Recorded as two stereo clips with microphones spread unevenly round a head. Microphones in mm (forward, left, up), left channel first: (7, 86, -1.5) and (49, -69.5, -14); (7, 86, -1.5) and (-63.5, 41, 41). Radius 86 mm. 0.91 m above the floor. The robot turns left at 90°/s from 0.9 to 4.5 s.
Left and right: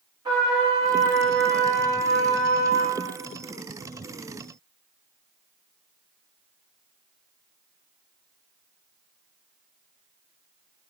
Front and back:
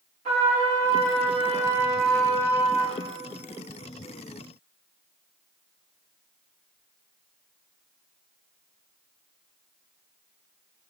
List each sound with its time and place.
0.2 s a trumpet: 140° right, 0.7 m; by 3.0 s 30° left, 0.7 m